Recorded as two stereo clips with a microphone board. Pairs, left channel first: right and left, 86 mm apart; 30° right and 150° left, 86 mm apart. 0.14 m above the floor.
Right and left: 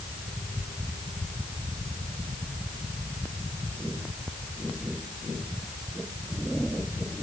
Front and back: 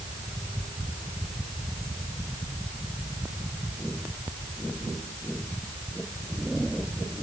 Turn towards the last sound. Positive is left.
No sound to turn to.